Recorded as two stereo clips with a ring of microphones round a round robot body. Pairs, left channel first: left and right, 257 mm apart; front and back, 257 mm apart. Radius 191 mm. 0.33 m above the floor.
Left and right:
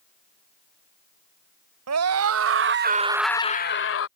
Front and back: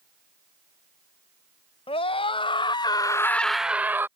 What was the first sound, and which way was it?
A scream, 70° right.